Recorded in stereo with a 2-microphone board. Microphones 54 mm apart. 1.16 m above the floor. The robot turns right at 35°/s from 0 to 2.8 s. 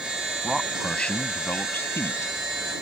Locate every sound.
0.4 s a man speaking: straight ahead; by 2.4 s 65° left